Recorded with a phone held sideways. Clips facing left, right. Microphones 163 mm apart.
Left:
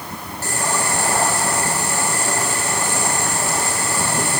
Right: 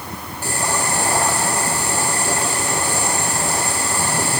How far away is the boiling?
About 8.5 m.